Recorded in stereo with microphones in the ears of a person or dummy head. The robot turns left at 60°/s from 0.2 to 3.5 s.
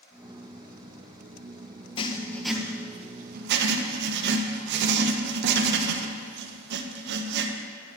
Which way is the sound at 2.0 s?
30° left.